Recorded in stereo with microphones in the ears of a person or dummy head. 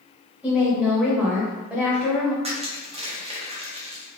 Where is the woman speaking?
5° right (ahead or behind), 0.8 m.